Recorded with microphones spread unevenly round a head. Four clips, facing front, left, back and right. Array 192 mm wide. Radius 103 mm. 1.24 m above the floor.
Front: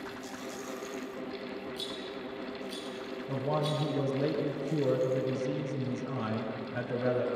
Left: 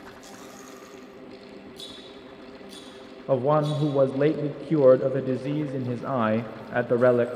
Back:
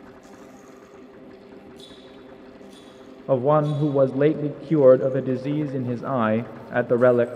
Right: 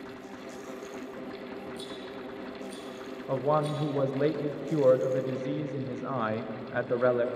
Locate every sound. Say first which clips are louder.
1.8 s a rattle: right 4 dB, front 4 dB; straight ahead, 6.5 m
3.3 s a man speaking: left 5 dB, back 13 dB; 145° left, 0.7 m